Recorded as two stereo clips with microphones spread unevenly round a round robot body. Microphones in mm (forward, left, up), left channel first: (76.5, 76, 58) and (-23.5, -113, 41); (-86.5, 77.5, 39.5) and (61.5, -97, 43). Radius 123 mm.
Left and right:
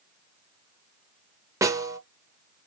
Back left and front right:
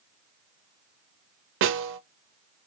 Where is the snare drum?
50° right, 0.5 m.